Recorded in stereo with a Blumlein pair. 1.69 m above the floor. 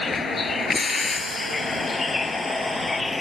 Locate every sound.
0.0 s a vehicle: 20° left; by 3.2 s 10° left